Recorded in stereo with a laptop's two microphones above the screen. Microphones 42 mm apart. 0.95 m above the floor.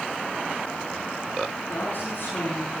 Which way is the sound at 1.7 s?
65° left (ahead or behind).